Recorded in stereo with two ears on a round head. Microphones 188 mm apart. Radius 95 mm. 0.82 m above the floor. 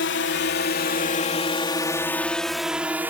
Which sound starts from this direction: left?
A drone, at 0.0 s.